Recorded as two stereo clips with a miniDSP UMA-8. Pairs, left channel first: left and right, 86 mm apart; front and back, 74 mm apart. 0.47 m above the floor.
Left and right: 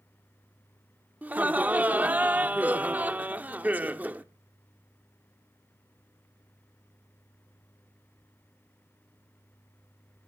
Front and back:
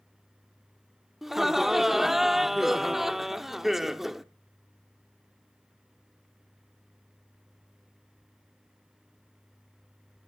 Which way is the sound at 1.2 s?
100° right.